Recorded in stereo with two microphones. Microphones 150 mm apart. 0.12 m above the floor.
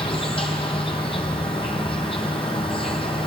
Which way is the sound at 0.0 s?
35° left (ahead or behind).